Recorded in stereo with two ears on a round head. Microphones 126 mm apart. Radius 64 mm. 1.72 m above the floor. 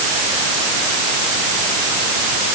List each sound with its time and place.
Only background noise.